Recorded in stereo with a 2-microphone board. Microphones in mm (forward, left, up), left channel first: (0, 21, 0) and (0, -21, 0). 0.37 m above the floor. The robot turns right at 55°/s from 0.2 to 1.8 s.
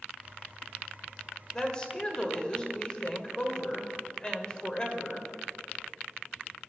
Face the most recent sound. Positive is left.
turn(degrees=25)  # may be behind; listen again after turning